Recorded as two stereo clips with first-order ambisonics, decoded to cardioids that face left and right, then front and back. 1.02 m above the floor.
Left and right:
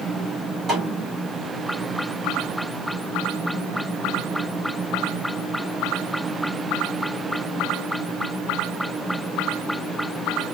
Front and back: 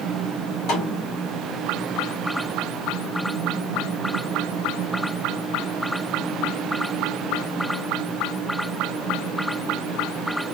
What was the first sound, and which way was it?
A snare drum, 15° right.